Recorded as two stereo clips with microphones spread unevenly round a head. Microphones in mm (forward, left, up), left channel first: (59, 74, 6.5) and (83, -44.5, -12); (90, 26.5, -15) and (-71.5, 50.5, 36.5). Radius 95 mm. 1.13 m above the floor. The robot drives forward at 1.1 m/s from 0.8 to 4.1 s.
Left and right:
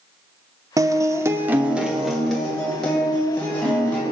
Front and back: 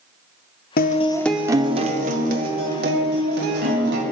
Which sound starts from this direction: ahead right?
A guitar, at 0.8 s.